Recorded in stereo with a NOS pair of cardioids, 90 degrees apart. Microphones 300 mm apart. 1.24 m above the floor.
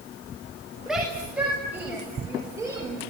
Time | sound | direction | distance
0.9 | a shout | straight ahead | 8 m